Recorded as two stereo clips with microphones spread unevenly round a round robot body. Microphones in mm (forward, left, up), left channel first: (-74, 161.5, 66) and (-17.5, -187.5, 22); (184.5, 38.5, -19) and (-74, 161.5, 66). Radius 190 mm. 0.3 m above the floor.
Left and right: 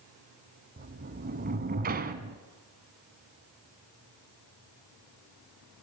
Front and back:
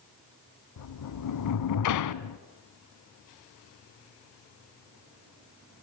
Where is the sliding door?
15° right, 0.8 m.